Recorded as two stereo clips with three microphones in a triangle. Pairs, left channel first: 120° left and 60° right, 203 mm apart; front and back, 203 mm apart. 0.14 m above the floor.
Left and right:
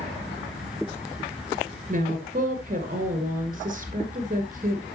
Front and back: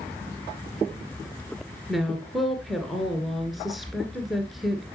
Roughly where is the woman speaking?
Right.